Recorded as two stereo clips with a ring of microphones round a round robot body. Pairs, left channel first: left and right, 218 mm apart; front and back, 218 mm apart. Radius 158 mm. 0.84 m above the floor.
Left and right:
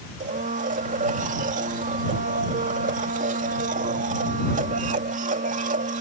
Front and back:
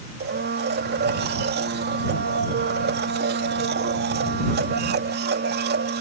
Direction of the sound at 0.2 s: 145° right.